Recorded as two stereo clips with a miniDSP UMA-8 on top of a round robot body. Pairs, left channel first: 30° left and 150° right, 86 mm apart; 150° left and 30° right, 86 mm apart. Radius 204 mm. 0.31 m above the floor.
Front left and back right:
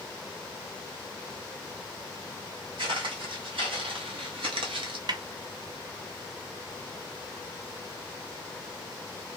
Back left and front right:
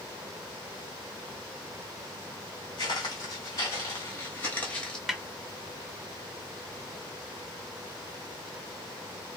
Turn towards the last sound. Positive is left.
turn(degrees=-115)